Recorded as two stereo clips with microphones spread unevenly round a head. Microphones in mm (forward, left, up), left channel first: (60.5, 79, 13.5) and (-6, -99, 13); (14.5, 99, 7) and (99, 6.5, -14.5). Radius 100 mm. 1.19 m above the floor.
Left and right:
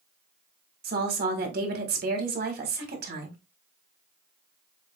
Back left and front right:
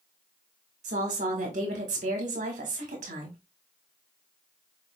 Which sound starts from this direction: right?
A woman speaking, at 0.8 s.